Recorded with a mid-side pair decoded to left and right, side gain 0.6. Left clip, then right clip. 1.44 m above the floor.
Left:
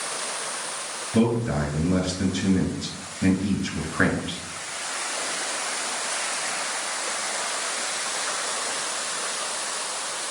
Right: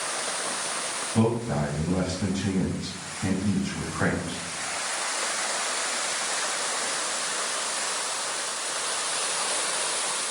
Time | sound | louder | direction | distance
1.1 | a man speaking | left 3 dB | 70° left | 2 m